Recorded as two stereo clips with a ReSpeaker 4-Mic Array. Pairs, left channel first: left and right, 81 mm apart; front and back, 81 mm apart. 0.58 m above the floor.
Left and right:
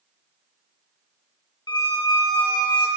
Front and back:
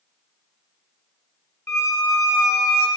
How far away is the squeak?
About 0.7 m.